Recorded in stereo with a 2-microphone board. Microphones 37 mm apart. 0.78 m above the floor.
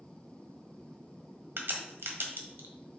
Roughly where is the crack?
Right.